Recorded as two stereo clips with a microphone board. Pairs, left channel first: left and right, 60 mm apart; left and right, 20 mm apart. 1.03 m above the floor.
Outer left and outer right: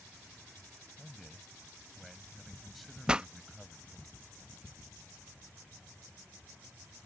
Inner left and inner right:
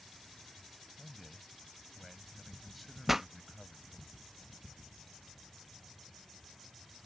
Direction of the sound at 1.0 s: Centre (ahead or behind).